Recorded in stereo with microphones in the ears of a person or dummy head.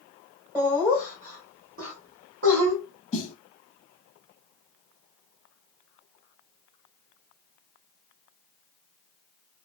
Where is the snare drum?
35° left (ahead or behind), 0.9 m.